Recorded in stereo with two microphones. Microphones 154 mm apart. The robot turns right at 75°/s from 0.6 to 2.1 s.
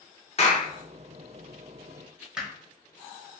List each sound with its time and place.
0.4 s a clap: 45° left (ahead or behind), 0.9 m; by 0.7 s 40° left (ahead or behind), 0.9 m
2.4 s hammering: 5° right (ahead or behind), 0.9 m